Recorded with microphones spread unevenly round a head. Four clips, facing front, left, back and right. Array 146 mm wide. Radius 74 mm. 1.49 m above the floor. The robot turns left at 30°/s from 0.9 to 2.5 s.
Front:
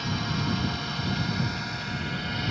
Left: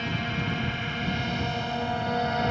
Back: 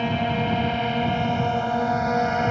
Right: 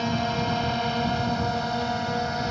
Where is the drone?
160° right; by 2.5 s 165° left.